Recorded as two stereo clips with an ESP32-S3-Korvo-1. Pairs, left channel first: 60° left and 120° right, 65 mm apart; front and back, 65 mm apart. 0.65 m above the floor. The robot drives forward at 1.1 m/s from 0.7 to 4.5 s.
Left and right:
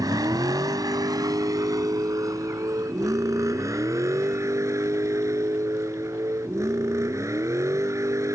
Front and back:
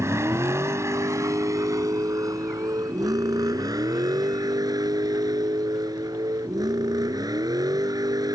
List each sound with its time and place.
0.0 s a vehicle: 135° right; by 8.4 s 160° right